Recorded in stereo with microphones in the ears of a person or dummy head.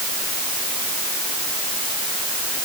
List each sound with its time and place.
Only background noise.